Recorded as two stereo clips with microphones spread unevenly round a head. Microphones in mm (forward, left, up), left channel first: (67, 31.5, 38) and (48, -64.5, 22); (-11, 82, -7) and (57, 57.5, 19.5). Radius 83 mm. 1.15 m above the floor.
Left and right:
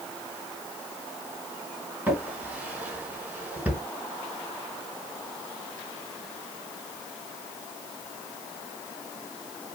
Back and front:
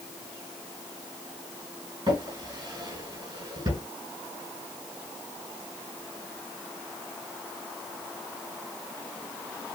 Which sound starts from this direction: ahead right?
A drawer, at 2.1 s.